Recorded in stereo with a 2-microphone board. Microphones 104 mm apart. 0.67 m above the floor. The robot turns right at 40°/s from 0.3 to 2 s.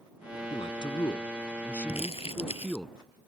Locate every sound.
0.5 s a man speaking: 115° left; by 2.9 s 175° left
1.9 s crumpling: 80° left